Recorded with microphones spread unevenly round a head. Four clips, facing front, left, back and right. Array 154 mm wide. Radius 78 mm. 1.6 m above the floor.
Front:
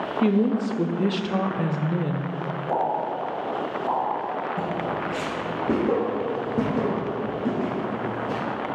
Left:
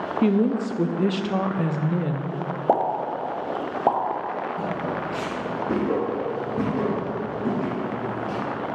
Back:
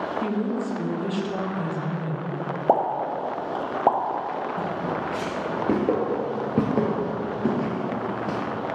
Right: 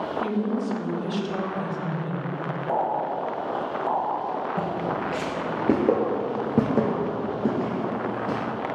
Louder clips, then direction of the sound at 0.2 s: Left 7 dB, front 8 dB; 60° left.